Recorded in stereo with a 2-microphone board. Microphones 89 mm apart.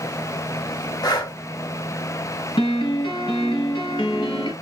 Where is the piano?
65° left (ahead or behind), 1.8 m.